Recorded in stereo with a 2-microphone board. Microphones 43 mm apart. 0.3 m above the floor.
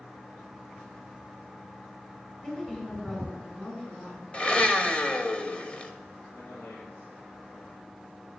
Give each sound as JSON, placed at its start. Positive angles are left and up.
{"t": 2.4, "sound": "a woman speaking", "side_deg": 25, "distance_m": 3.5}
{"t": 4.3, "sound": "a blender", "side_deg": 25, "distance_m": 0.9}
{"t": 6.3, "sound": "a man speaking", "side_deg": 65, "distance_m": 5.5}